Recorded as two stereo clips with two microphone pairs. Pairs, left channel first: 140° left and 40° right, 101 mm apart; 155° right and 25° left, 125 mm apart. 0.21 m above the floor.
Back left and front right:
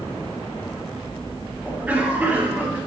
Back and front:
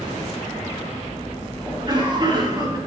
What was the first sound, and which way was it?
A cough, 20° left.